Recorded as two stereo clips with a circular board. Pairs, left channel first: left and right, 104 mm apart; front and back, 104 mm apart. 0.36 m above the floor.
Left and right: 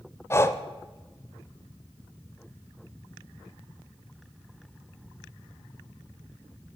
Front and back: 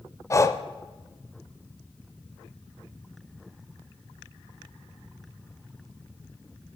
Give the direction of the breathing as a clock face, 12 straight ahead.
11 o'clock.